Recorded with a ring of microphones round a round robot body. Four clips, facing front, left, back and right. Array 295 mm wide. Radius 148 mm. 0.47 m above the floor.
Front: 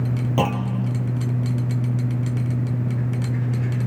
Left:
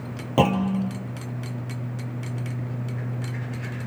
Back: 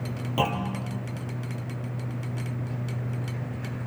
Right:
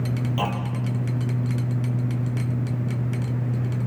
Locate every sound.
0.4 s a clunk: 70° left, 2 m